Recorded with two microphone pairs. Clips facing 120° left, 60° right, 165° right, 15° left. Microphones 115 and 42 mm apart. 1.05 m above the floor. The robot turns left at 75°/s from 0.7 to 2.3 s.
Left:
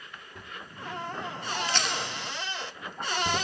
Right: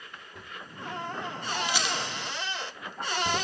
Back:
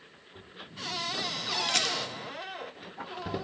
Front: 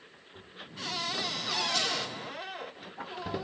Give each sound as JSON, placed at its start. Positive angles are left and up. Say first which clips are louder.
{"t": 1.7, "sound": "a rattle", "louder": "even, back 2 dB", "azimuth_deg": -140, "distance_m": 1.0}